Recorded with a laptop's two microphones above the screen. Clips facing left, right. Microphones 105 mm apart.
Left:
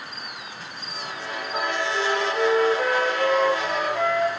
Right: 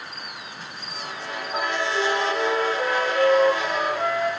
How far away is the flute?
About 6 m.